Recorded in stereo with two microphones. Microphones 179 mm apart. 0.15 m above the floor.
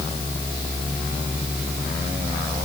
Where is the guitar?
No guitar in this recording.